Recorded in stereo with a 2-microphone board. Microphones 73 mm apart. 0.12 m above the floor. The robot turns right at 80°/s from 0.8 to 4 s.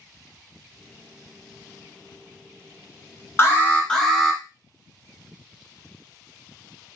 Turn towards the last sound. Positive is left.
turn(degrees=170)